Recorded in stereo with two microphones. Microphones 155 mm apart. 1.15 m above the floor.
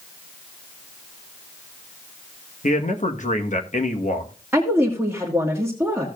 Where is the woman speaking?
15° right (ahead or behind), 1.7 m.